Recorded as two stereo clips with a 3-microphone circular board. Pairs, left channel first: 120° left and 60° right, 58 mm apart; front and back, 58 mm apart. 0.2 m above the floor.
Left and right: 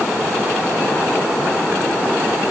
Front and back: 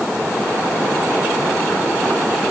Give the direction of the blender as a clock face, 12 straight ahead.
No blender in this recording.